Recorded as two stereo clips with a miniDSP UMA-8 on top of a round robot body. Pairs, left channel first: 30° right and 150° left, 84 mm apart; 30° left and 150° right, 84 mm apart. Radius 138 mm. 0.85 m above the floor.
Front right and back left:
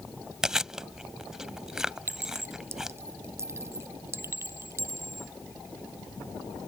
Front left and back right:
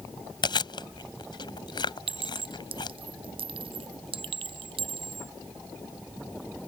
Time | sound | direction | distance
0.4 | chewing | 65° left | ?
2.1 | a clink | 150° right | ?